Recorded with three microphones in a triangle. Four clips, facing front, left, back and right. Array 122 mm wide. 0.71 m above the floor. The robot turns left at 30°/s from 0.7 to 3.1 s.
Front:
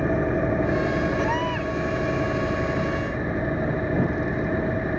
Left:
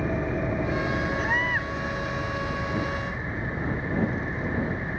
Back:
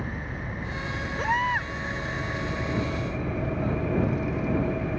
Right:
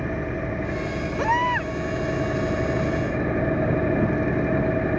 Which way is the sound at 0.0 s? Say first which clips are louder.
Even, front 13 dB; straight ahead.